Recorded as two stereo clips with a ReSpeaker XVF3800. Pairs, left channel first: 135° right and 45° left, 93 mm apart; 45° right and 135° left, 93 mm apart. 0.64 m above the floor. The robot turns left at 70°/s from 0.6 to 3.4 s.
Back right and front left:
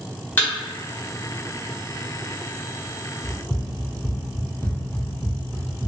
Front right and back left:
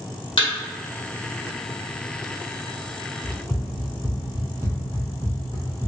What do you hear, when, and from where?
0.4 s a thud: 70° right, 1.1 m
3.2 s running footsteps: 120° right, 1.0 m; by 5.9 s 110° left, 0.9 m